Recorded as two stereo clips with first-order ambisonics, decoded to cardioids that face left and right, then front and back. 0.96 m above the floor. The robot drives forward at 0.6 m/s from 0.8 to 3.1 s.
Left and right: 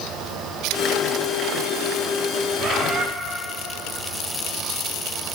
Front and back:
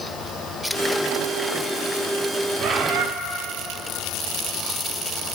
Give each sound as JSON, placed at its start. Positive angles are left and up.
{"t": 2.6, "sound": "a bird", "azimuth_deg": -135, "distance_m": 0.6}